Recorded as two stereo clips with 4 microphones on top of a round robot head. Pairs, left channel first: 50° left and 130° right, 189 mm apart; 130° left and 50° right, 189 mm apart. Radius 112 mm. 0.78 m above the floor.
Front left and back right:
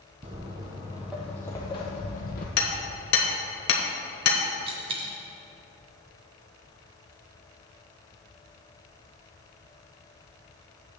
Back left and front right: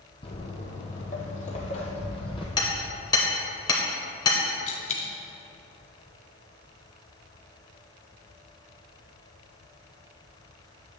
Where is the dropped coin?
175° left, 0.5 m.